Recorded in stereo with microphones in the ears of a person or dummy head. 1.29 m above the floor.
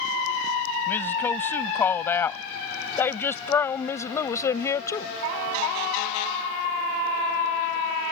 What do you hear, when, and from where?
0.9 s a woman speaking: 10° left (ahead or behind); by 5.2 s 15° left (ahead or behind)